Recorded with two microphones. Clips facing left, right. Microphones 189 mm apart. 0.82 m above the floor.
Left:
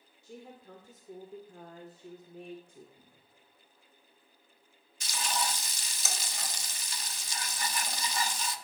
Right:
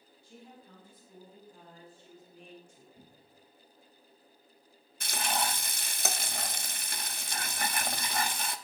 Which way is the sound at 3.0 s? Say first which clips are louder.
Right 5 dB; 35° right (ahead or behind).